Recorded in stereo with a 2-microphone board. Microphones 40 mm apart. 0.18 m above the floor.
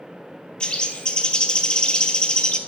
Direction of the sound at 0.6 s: 20° left (ahead or behind).